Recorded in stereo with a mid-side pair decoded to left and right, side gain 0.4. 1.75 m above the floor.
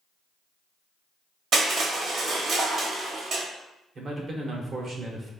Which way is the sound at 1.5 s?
65° right.